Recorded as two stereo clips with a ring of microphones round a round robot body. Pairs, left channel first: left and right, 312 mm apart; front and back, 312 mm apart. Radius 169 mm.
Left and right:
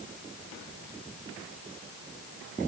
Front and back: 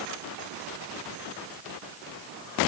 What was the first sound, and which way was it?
Only background noise.